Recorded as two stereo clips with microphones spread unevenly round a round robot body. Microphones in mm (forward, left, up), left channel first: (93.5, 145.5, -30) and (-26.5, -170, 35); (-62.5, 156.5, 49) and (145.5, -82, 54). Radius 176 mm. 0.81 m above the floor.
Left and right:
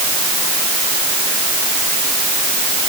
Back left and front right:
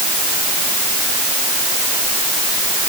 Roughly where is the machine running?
I don't hear a machine running.